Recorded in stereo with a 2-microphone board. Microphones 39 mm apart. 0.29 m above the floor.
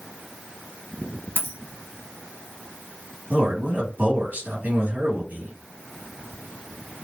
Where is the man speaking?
55° right (ahead or behind), 2 m.